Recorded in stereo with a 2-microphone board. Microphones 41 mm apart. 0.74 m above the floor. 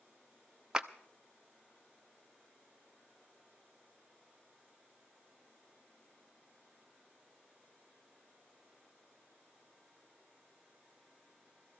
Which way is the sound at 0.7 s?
20° right (ahead or behind).